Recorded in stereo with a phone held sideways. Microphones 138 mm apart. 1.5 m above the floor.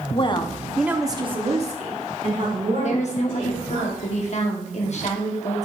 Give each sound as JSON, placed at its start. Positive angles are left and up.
{"t": 0.1, "sound": "a woman speaking", "side_deg": 45, "distance_m": 1.0}
{"t": 2.8, "sound": "a woman speaking", "side_deg": 55, "distance_m": 1.1}